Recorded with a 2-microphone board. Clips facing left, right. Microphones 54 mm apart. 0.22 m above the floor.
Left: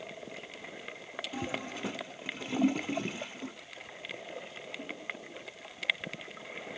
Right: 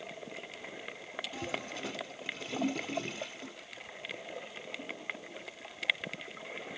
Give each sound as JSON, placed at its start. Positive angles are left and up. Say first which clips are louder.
{"t": 1.3, "sound": "a toilet flushing", "louder": "left 3 dB", "side_deg": 15, "distance_m": 0.6}